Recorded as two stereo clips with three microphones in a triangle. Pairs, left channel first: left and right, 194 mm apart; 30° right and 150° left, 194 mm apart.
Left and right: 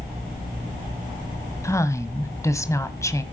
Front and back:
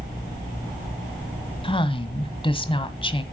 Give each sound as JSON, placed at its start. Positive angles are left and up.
{"t": 1.6, "sound": "a woman speaking", "azimuth_deg": 20, "distance_m": 1.5}